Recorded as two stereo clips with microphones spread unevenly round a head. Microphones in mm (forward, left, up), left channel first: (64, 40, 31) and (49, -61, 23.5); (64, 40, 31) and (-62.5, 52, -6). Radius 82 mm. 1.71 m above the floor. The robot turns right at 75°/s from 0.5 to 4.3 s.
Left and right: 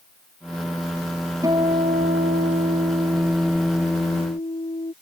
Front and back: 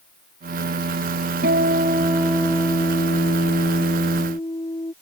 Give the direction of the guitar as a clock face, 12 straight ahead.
6 o'clock.